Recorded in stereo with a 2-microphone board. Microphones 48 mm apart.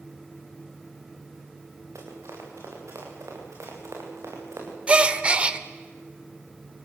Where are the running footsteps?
80° right, 7.5 m; by 4.8 s 70° right (ahead or behind), 6.5 m.